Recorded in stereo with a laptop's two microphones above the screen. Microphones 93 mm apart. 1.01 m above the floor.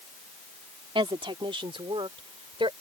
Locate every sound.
0.9 s a woman speaking: 65° right (ahead or behind)